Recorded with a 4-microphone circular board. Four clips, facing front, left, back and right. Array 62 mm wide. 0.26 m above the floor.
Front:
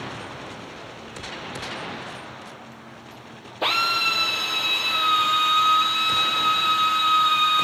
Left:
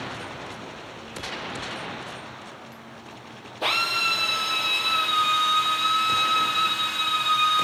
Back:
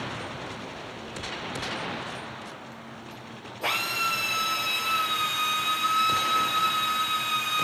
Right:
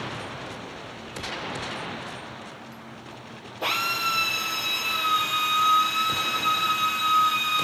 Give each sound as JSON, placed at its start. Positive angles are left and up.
{"t": 3.6, "sound": "a drill", "azimuth_deg": 10, "distance_m": 6.0}